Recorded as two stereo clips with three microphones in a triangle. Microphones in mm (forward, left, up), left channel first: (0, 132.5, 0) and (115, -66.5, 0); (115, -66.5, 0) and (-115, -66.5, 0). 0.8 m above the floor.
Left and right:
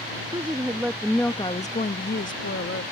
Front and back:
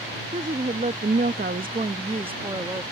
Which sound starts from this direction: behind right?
A woman speaking, at 0.3 s.